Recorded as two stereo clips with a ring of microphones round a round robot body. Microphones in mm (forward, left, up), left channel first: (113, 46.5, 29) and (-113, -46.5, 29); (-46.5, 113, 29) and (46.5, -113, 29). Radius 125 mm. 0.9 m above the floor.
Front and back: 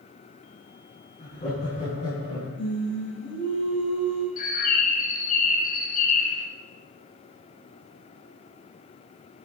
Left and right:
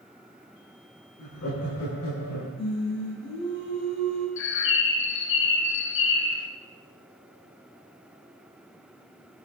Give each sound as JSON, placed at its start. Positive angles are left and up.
{"t": 1.2, "sound": "laughter", "azimuth_deg": 85, "distance_m": 8.0}
{"t": 2.6, "sound": "singing", "azimuth_deg": 65, "distance_m": 6.5}
{"t": 4.4, "sound": "a bird", "azimuth_deg": 80, "distance_m": 1.7}